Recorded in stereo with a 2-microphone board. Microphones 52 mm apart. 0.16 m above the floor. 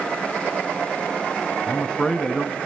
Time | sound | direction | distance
1.7 | a man speaking | 15° left (ahead or behind) | 1.8 m